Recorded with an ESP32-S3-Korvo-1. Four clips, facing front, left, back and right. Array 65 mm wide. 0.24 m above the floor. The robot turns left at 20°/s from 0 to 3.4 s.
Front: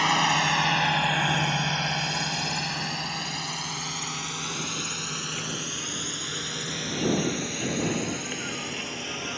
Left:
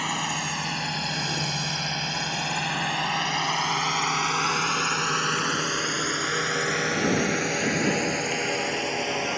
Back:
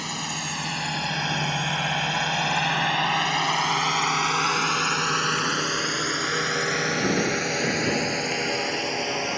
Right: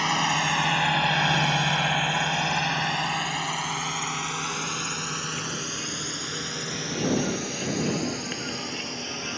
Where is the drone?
15° right; by 9.4 s 140° left.